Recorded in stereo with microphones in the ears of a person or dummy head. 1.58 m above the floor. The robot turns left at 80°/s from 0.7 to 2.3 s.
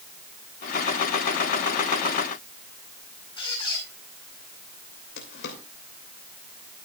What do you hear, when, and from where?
3.4 s a squeak: 25° left (ahead or behind), 5 m
5.2 s a drawer: 70° left (ahead or behind), 3 m